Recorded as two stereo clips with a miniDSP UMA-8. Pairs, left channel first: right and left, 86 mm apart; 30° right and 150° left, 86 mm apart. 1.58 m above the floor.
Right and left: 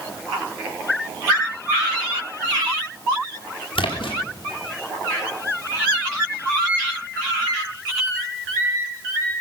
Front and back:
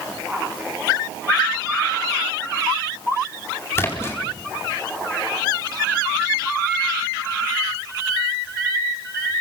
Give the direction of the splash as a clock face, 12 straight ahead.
3 o'clock.